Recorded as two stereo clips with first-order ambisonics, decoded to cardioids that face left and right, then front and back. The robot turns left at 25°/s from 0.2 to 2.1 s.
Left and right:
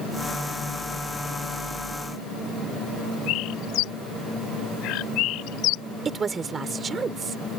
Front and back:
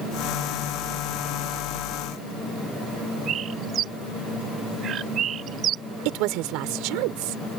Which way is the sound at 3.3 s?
120° left.